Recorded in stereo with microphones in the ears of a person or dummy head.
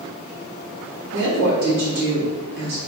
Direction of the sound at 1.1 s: 60° right (ahead or behind).